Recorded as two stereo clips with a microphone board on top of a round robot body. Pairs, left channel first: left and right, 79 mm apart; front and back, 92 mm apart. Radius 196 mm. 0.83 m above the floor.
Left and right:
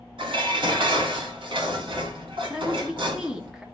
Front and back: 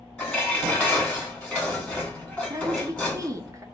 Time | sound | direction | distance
0.2 | dishes clattering | 75° right | 1.3 m
2.5 | a woman speaking | 165° right | 1.0 m